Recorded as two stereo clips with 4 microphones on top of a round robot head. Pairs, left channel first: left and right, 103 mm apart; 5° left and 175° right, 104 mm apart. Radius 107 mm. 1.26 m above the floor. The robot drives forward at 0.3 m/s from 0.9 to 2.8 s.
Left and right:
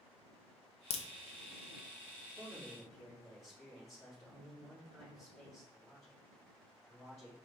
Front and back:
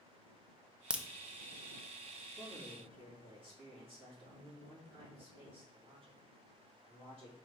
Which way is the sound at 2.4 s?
150° left.